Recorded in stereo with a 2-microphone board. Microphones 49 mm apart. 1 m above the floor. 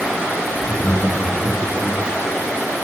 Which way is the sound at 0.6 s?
70° left (ahead or behind).